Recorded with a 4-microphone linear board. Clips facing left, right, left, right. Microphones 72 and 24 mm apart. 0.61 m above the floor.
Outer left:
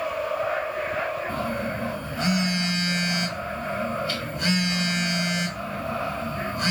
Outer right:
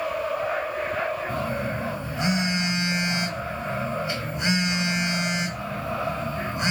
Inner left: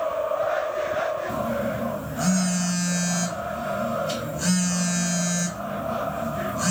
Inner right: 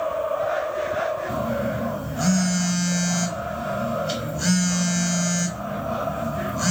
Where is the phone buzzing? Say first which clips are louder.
Even, inner right 1 dB; 20° right (ahead or behind), 1.6 m.